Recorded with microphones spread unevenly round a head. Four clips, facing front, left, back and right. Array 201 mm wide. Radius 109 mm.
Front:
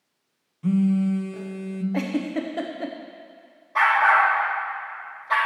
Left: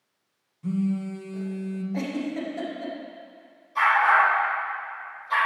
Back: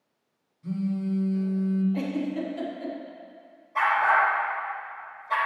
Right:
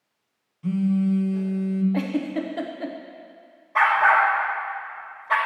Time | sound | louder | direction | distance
0.6 | a phone buzzing | right 5 dB, front 8 dB | 5° right | 0.6 m
1.9 | a giggle | right 4 dB, front 3 dB | 25° right | 0.7 m
3.8 | a dog barking | right 2 dB, front 4 dB | 60° right | 1.1 m